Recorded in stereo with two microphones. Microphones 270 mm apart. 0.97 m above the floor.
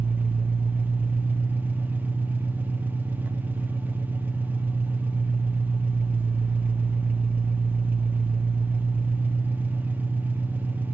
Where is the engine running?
5° right (ahead or behind), 0.9 m.